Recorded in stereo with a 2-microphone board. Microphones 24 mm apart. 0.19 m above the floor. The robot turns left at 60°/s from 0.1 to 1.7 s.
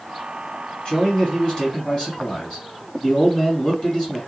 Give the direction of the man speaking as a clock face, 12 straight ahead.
8 o'clock.